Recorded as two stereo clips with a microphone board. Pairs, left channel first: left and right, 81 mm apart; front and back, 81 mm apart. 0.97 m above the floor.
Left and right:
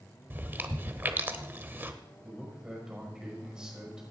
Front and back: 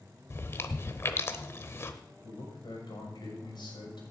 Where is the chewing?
40° right, 0.9 m.